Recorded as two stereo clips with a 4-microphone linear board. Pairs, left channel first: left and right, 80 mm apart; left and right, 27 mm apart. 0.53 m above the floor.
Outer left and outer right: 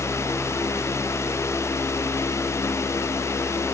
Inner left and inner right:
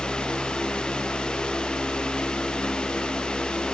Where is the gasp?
I don't hear a gasp.